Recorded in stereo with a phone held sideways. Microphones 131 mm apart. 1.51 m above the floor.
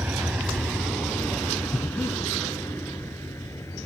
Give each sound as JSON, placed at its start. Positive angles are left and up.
{"t": 0.0, "sound": "a vehicle", "side_deg": -15}
{"t": 1.7, "sound": "breathing", "side_deg": 15}